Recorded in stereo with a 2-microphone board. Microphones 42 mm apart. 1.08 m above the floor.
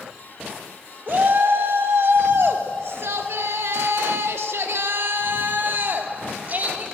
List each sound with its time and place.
1.1 s a shout: 60° right (ahead or behind), 2.5 m; by 6.8 s 40° right (ahead or behind), 2 m